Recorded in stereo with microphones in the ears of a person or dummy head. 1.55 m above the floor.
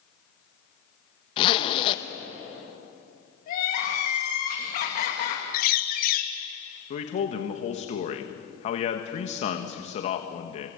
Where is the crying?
55° left (ahead or behind), 2.5 m.